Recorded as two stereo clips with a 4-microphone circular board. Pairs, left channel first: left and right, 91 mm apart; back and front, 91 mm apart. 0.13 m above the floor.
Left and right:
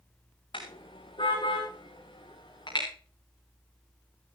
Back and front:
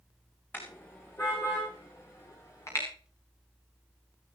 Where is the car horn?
110° left, 7.5 m; by 2.9 s 125° left, 9 m.